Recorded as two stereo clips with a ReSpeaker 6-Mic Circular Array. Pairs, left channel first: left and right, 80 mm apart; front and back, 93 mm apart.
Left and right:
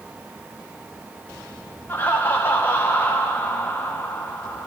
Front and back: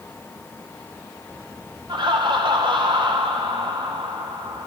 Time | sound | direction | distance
1.9 | laughter | 155° left | 1.3 m